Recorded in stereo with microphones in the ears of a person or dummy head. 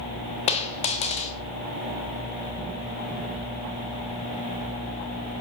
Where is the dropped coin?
35° left (ahead or behind), 0.9 m.